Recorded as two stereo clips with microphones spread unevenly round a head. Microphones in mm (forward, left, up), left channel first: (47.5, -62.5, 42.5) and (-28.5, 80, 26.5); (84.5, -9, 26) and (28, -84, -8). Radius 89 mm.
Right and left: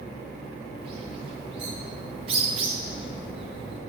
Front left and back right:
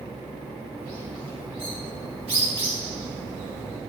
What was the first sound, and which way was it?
A bird, straight behind.